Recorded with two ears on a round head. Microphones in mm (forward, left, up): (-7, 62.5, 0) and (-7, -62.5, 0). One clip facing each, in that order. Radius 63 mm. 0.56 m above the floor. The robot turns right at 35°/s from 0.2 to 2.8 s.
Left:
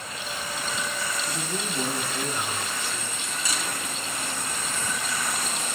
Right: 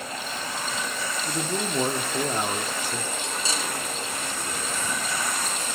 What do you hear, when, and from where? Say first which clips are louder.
1.2 s a man speaking: right 3 dB; 150° right, 0.9 m; by 3.1 s 95° right, 0.9 m
3.2 s cutlery clinking: right 2 dB; 25° right (ahead or behind), 1.9 m